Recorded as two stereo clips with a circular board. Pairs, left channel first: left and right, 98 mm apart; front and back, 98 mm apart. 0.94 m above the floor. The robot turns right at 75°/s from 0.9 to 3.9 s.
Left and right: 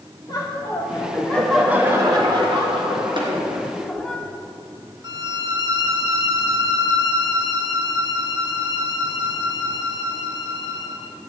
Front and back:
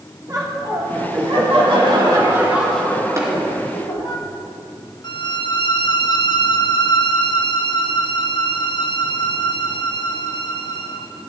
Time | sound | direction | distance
0.3 | laughter | 135° left | 3 m
3.2 | tapping | 120° right | 2.5 m
5.0 | a violin | 40° right | 1.0 m